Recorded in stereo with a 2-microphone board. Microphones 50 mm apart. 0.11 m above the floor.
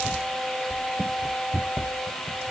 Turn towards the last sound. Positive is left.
No sound to turn to.